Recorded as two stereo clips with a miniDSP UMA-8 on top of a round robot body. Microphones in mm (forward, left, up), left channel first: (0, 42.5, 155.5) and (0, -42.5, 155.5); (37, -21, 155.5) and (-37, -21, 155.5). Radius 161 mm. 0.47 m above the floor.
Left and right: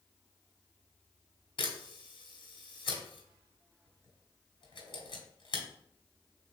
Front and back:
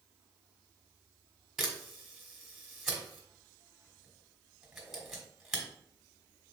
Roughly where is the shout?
No shout in this recording.